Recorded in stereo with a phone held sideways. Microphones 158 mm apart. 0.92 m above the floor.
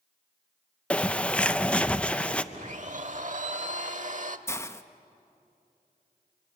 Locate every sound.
0.9 s a bird: 5° left (ahead or behind), 0.5 m
2.5 s a blender: 50° right (ahead or behind), 1.0 m
4.5 s a hiss: 15° left (ahead or behind), 0.8 m